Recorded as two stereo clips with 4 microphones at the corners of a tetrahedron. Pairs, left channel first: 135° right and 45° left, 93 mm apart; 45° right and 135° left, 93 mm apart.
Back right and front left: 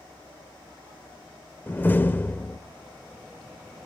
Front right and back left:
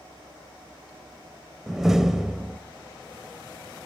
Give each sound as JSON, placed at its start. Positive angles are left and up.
{"t": 1.7, "sound": "a door slam", "azimuth_deg": -150, "distance_m": 0.9}